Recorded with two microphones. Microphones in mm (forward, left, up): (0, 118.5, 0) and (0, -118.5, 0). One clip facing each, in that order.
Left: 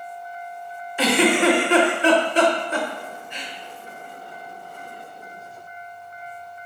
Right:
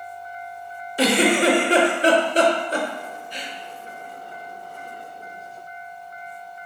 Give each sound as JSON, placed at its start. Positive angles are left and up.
{"t": 1.0, "sound": "a giggle", "side_deg": -40, "distance_m": 0.7}